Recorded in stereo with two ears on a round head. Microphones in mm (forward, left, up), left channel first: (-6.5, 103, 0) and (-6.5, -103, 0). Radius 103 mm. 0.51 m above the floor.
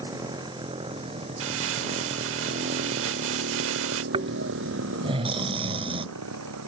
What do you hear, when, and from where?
0.0 s a motorcycle: 15° right (ahead or behind); by 6.7 s 75° right (ahead or behind)
1.4 s crumpling: 60° right (ahead or behind)
4.1 s snoring: 25° right (ahead or behind)